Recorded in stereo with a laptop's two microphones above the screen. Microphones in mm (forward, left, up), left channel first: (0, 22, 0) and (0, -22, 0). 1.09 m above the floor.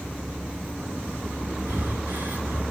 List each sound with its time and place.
1.7 s breathing: 45° right (ahead or behind), 2 m